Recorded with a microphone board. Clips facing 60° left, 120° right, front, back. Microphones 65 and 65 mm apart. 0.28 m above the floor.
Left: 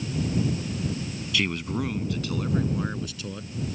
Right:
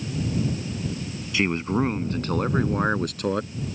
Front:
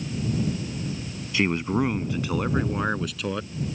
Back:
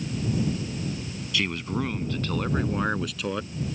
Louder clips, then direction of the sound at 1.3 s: Right 5 dB, front 5 dB; 60° right.